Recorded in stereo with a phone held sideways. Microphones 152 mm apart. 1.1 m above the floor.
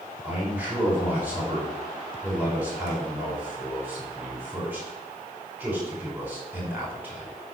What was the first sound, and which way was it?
A man speaking, 10° right (ahead or behind).